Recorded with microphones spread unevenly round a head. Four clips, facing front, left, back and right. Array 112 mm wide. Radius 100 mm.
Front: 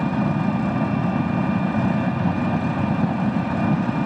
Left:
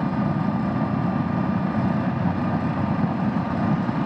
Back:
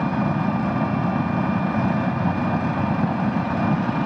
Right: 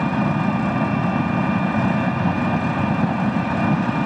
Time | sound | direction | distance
0.0 | an engine running | 10° left | ?